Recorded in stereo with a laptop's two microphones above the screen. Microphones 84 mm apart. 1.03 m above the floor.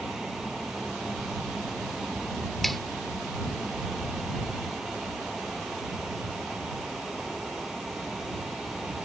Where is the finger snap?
5° left (ahead or behind).